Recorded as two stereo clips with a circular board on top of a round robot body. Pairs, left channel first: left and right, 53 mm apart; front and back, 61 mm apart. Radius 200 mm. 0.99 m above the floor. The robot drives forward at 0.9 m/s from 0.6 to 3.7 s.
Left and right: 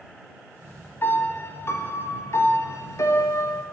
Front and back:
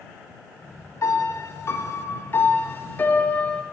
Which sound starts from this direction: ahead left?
A piano, at 1.0 s.